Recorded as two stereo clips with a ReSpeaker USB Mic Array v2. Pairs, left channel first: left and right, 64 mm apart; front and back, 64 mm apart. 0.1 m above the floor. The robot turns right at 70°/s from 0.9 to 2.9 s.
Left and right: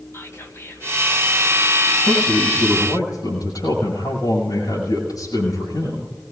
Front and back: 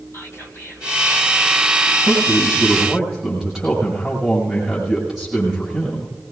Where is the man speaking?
35° left, 6.5 m; by 6.1 s 95° left, 6.5 m.